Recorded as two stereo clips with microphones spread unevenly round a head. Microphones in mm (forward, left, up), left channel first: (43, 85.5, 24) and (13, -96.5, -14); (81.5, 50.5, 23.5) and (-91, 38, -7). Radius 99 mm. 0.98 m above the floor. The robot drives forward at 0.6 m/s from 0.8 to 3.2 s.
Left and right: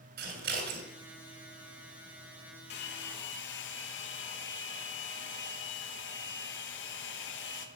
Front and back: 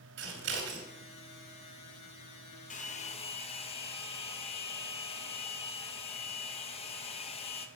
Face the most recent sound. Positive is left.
turn(degrees=60)